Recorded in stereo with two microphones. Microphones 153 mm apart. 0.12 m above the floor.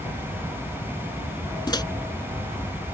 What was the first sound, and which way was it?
A microwave, 30° left (ahead or behind).